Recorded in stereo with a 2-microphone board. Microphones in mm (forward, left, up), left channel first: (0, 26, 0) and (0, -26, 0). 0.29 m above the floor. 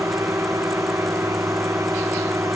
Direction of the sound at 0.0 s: 75° right (ahead or behind).